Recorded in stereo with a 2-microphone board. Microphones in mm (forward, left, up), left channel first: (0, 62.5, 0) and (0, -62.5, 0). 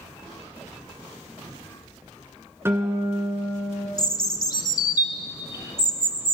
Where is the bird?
35° left (ahead or behind), 0.6 m.